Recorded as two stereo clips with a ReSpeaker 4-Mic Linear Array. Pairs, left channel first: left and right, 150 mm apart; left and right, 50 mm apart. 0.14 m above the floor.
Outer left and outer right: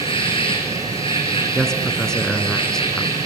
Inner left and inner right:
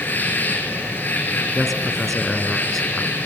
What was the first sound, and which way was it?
An insect, 35° left (ahead or behind).